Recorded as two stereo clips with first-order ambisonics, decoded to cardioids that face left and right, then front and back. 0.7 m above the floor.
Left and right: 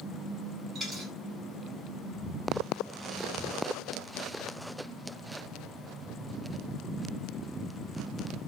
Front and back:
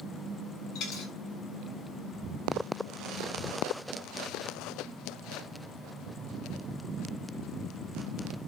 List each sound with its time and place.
0.8 s a dropped coin: 20° right, 1.6 m